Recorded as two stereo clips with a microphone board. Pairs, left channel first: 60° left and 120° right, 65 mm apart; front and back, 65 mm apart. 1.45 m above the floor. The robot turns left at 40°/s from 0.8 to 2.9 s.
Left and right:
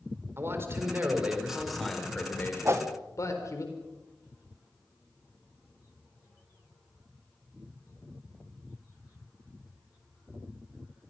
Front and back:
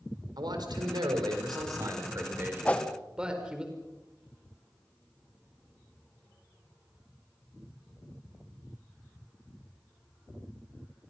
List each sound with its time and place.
0.4 s a man speaking: 175° right, 4.5 m; by 3.6 s 100° left, 4.5 m
2.6 s a whoosh: 70° right, 1.4 m; by 2.9 s 80° right, 1.4 m